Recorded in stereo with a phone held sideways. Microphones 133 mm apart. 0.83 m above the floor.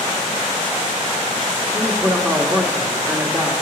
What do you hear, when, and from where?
1.7 s a man speaking: 15° right (ahead or behind), 1.7 m